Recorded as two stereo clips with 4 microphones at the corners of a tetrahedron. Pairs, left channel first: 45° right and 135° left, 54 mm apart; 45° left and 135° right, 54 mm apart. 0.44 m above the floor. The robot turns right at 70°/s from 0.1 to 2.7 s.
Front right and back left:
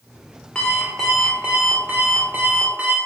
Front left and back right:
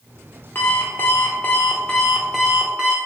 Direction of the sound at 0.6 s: 20° left.